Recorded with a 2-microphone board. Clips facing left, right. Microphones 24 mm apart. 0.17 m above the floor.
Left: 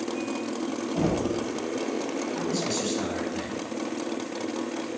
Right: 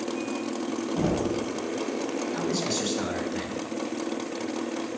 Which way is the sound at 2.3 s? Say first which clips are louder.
Even; 20° right (ahead or behind).